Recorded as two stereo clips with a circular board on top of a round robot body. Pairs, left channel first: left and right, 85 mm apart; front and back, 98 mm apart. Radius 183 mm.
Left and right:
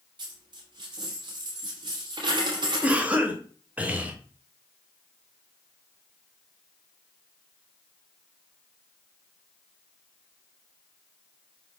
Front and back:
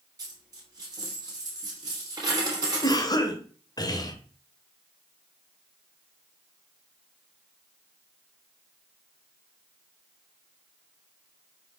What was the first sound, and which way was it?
A dropped coin, 125° right.